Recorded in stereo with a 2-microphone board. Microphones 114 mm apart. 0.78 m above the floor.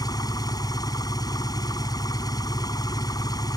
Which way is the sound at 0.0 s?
35° left (ahead or behind).